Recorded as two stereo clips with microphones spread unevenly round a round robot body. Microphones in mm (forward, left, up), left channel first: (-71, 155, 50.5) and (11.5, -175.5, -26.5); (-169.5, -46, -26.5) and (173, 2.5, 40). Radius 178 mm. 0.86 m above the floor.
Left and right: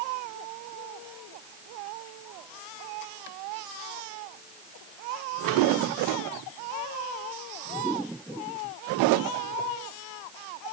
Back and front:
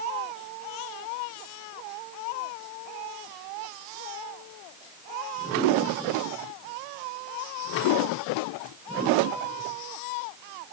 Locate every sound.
Only background noise.